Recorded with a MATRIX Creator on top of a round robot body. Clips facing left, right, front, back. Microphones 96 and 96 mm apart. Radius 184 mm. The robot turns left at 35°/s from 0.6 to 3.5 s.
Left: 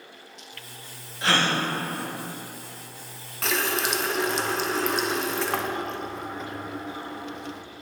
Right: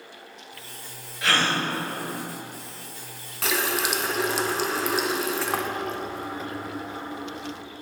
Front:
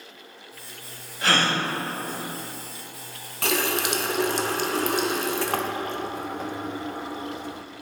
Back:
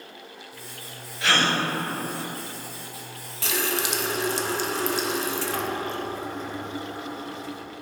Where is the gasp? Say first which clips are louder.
Even, even; 35° left, 1.5 m; by 1.6 s 20° left, 1.5 m.